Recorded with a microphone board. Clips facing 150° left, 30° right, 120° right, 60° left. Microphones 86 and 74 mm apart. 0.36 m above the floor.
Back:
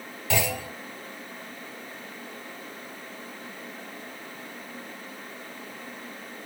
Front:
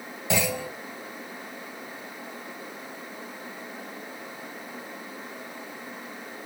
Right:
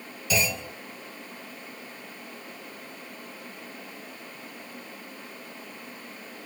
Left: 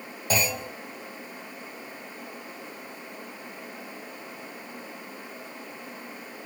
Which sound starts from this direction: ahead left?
A clunk, at 0.3 s.